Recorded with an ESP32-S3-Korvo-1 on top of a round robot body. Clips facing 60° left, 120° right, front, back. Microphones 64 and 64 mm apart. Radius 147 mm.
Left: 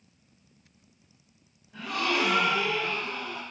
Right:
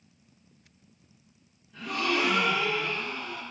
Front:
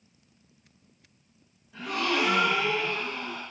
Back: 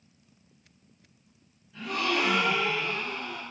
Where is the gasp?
10° left, 1.8 m.